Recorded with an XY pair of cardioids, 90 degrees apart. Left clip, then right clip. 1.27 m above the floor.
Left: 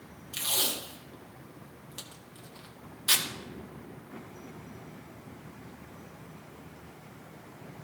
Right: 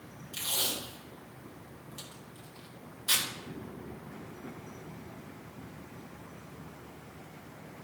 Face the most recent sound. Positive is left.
turn(degrees=50)